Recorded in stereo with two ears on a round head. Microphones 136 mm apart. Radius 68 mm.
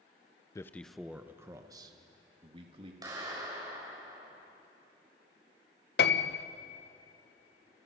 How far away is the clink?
I don't hear a clink.